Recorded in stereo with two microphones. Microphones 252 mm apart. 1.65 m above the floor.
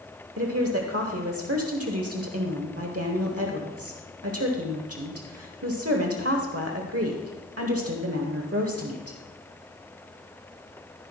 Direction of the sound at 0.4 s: 65° right (ahead or behind).